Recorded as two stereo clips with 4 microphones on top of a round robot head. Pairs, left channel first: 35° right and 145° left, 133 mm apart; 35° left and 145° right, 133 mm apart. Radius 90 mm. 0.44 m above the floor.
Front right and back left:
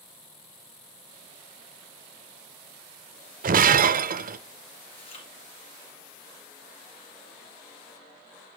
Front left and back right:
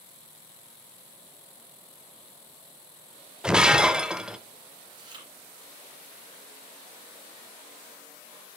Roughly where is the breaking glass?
Behind left.